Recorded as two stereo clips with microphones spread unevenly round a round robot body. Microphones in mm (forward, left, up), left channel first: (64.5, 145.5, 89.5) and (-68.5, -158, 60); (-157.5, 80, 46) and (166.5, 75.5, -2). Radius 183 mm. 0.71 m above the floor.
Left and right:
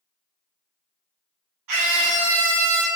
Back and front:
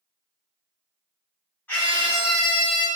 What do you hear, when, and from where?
1.7 s a scream: 95° right, 1.5 m